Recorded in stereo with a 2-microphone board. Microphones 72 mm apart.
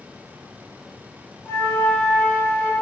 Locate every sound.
1.4 s a flute: 20° left (ahead or behind), 0.8 m